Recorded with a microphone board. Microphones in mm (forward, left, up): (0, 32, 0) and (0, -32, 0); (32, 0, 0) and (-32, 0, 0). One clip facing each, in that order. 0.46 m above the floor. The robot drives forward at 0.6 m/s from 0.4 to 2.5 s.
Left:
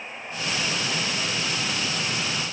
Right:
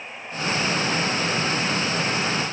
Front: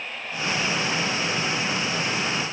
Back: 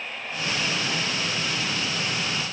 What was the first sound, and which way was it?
Only background noise.